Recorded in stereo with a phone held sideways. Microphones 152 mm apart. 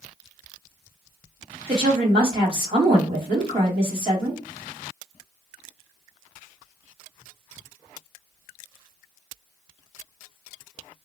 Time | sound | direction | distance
1.7 | a woman speaking | 35° right (ahead or behind) | 1.4 m